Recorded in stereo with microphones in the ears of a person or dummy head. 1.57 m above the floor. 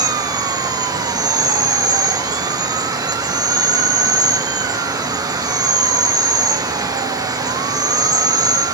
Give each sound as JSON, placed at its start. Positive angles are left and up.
{"t": 0.0, "sound": "an insect", "side_deg": -20, "distance_m": 0.7}